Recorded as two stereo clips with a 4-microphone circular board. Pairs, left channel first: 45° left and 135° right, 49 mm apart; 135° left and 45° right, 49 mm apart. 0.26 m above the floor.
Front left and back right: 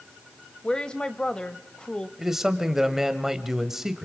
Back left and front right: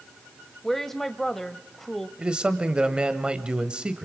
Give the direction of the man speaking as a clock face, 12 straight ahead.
2 o'clock.